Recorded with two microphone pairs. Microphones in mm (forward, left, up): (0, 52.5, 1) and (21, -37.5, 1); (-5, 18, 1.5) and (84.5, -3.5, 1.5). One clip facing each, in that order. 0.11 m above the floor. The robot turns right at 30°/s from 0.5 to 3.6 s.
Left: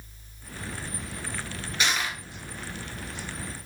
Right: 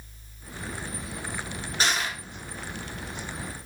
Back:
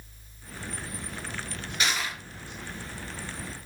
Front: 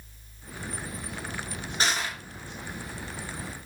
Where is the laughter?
I don't hear laughter.